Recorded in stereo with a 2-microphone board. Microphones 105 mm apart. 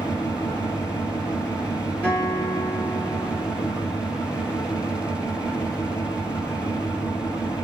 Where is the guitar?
15° left (ahead or behind), 2.5 m.